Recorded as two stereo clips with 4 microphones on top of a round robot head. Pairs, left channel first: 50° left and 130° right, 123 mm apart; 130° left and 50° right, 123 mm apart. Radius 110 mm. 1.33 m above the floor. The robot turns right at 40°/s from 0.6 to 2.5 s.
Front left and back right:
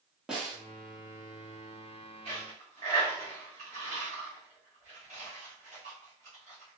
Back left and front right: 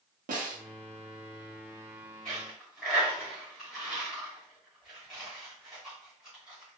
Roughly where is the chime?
No chime in this recording.